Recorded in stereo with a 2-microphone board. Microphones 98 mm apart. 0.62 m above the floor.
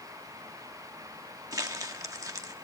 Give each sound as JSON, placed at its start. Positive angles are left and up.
{"t": 1.5, "sound": "crumpling", "side_deg": -35, "distance_m": 1.2}